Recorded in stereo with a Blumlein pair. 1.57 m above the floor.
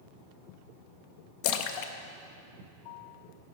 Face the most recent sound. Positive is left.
turn(degrees=45)